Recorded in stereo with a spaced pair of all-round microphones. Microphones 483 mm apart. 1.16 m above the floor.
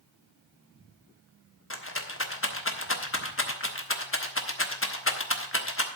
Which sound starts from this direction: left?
A rattle, at 1.7 s.